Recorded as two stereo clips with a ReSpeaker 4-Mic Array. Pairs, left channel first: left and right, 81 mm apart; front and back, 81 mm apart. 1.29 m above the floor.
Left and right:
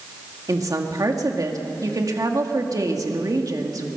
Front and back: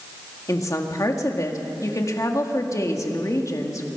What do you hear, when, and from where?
0.5 s a woman speaking: 45° right, 2.0 m